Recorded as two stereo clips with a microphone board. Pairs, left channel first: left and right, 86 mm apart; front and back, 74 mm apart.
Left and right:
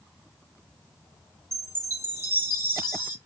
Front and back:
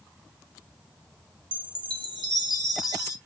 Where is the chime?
150° right, 0.7 m.